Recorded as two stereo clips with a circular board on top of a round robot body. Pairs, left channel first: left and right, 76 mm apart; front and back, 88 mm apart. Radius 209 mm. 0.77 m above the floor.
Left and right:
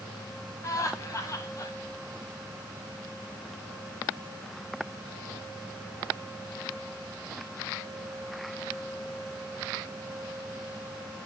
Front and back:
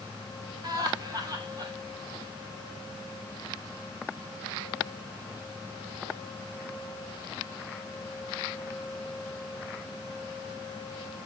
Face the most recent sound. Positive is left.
turn(degrees=140)